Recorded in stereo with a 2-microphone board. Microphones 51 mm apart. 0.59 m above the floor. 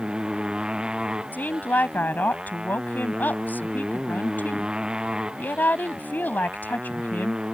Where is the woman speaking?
35° left (ahead or behind).